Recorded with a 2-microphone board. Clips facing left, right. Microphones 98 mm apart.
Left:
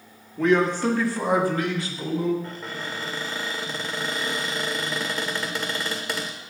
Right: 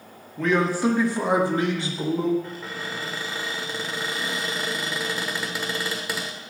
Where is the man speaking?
5° left (ahead or behind), 1.0 m; by 2.3 s 30° right (ahead or behind), 2.5 m.